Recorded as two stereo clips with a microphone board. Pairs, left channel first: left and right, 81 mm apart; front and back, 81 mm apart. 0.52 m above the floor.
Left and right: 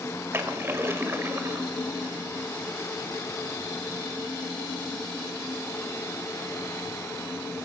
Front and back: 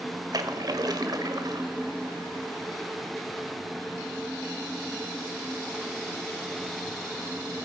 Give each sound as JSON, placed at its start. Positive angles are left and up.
{"t": 0.3, "sound": "a splash", "azimuth_deg": -150, "distance_m": 1.6}